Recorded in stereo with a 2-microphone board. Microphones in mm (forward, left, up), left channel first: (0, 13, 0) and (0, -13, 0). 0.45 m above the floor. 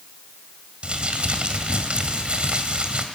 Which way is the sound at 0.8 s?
45° right (ahead or behind).